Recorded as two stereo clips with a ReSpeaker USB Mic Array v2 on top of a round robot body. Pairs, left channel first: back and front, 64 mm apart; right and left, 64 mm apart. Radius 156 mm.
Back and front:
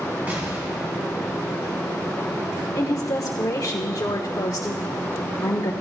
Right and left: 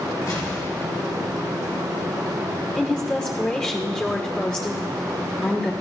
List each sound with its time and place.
0.3 s an explosion: 60° right, 3.5 m
2.8 s a woman speaking: 160° right, 1.2 m